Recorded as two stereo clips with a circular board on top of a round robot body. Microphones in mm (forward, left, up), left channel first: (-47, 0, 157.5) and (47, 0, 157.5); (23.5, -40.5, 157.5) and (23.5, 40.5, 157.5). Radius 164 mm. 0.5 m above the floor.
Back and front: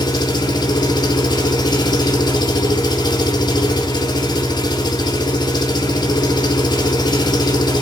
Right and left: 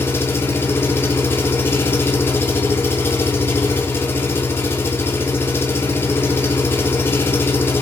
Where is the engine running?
150° right, 2.5 m.